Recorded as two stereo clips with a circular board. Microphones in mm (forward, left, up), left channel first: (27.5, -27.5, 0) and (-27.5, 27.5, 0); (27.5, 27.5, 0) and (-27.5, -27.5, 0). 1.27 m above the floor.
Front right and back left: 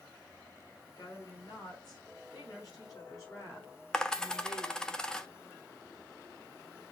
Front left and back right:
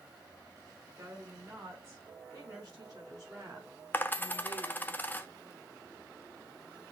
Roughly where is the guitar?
I don't hear a guitar.